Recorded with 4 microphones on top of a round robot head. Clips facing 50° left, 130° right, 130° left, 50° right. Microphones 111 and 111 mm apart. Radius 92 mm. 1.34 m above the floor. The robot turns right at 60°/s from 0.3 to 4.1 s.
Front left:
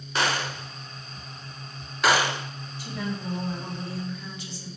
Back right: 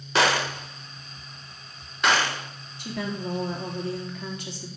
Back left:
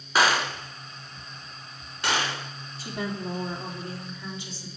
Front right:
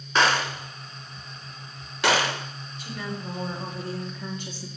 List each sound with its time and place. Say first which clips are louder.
0.1 s a gunshot: back right 4 dB, even; 145° right, 1.8 m; by 2.5 s 15° right, 1.8 m
2.8 s a woman speaking: back right 2 dB, back left 3 dB; 170° right, 3.5 m; by 4.7 s 90° right, 3.5 m